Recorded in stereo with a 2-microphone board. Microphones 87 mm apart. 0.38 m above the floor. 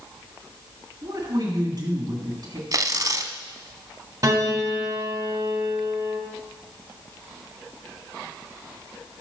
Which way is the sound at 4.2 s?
40° right (ahead or behind).